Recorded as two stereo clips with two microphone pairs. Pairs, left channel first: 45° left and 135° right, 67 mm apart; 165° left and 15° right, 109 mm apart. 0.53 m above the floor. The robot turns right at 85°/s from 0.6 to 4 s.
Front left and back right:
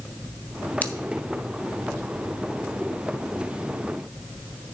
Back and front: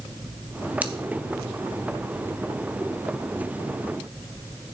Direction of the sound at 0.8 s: 40° left.